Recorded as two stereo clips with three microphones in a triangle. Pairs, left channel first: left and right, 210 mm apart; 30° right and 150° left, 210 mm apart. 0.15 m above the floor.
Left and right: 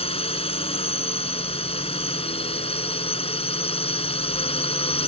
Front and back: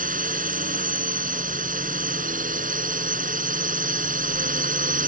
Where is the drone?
135° left.